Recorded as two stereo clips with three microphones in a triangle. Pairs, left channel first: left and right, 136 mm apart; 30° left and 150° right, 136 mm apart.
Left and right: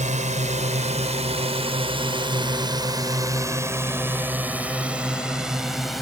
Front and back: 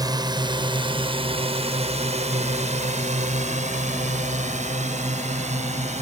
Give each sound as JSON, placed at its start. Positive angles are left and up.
{"t": 0.0, "sound": "a drone", "azimuth_deg": -95}